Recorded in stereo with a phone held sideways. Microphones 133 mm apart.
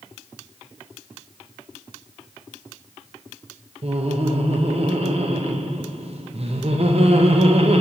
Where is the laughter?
50° right (ahead or behind), 0.7 m.